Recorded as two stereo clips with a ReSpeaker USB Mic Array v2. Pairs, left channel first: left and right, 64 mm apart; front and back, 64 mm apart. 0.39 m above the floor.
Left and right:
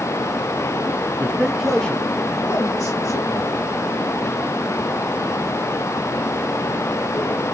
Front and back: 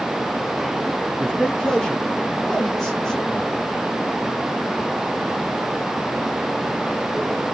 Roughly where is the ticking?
I don't hear ticking.